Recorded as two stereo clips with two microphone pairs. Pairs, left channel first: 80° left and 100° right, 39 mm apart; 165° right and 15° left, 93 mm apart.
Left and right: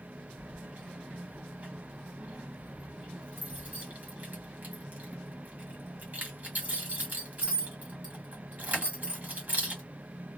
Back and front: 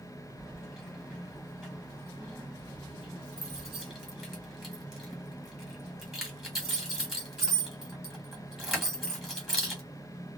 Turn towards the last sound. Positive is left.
turn(degrees=-75)